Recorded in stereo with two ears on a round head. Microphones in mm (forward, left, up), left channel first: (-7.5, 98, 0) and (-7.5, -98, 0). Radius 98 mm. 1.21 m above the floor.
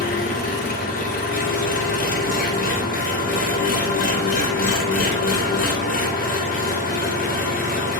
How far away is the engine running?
About 0.8 m.